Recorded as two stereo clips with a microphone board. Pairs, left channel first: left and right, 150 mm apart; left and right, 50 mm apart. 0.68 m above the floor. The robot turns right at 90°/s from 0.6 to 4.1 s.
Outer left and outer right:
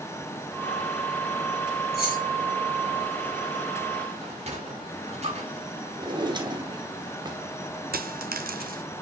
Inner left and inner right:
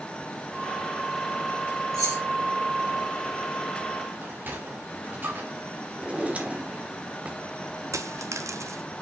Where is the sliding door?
45° right (ahead or behind), 1.9 m.